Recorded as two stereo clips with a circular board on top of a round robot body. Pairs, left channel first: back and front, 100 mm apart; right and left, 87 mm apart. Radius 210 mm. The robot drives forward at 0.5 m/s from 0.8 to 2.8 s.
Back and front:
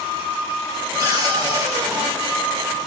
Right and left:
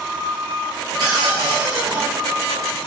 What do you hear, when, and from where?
1.0 s a cupboard door: 55° left, 4 m; by 2.1 s 60° left, 4 m